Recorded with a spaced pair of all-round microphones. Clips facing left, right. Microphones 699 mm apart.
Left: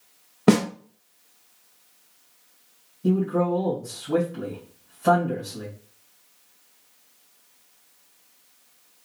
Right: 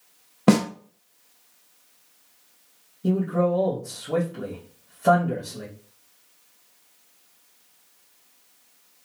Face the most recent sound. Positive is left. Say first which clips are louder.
# even
turn(degrees=5)  # may be behind; listen again after turning